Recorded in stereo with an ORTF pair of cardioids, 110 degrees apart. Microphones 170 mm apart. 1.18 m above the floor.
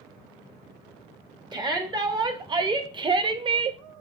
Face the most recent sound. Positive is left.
turn(degrees=-35)